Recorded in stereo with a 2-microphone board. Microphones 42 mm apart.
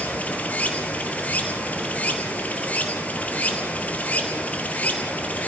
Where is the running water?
35° left (ahead or behind), 2 m.